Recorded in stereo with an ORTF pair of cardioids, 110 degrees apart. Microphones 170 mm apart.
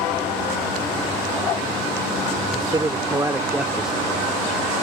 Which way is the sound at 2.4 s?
25° right.